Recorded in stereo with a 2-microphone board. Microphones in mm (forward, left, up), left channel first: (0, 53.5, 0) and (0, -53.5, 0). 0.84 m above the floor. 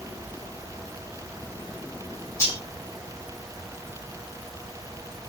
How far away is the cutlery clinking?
About 2.5 m.